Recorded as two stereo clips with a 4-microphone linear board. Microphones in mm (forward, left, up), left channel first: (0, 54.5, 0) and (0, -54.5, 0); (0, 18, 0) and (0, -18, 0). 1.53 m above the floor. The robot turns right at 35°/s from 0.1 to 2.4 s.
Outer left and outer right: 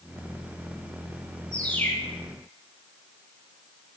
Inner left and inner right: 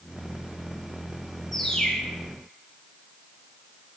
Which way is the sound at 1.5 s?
10° left (ahead or behind).